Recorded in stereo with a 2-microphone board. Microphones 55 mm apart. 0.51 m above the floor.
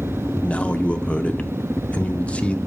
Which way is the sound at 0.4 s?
25° left (ahead or behind).